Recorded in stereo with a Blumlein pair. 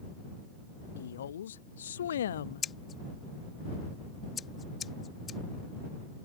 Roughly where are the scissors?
Ahead.